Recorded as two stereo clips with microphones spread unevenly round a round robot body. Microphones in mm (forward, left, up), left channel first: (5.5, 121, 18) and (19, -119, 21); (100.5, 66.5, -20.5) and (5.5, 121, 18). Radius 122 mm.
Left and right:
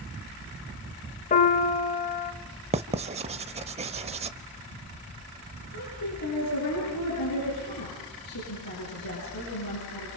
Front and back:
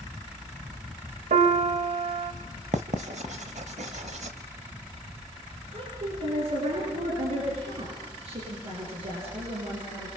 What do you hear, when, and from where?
1.3 s a piano: 150° left, 2.5 m
2.7 s writing: 155° right, 0.6 m
5.7 s a woman speaking: 120° left, 9.5 m